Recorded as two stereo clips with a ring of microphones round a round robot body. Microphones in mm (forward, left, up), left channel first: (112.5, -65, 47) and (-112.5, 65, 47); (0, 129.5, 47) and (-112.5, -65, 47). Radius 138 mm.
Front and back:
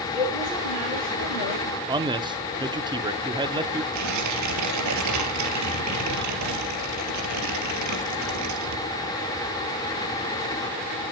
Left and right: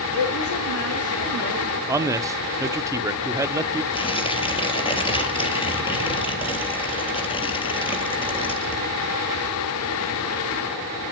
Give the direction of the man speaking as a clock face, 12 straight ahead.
6 o'clock.